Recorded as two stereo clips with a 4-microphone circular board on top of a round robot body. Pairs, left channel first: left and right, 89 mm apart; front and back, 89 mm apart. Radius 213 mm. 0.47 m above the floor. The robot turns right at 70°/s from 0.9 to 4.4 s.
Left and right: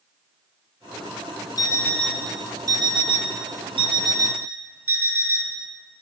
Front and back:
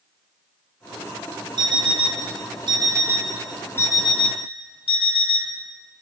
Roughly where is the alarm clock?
Behind left.